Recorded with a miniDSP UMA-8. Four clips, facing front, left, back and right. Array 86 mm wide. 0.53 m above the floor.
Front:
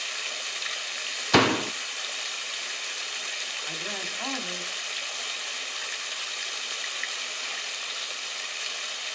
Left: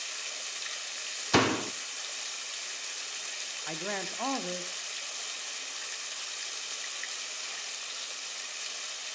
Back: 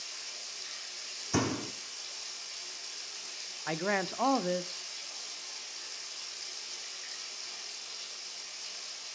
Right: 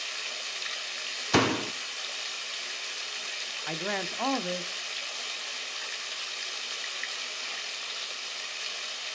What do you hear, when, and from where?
0.0 s running water: 15° right, 1.4 m
1.3 s a door slam: straight ahead, 0.5 m
3.7 s a man speaking: 160° right, 1.0 m